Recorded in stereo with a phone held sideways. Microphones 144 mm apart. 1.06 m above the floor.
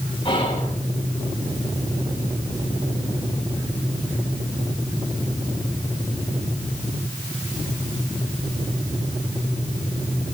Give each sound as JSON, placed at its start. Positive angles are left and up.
{"t": 0.2, "sound": "whispering", "side_deg": 35, "distance_m": 9.5}